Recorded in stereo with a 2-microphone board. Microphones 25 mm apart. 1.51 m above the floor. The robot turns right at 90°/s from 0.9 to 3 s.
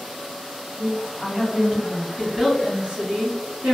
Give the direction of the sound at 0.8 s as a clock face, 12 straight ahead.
7 o'clock.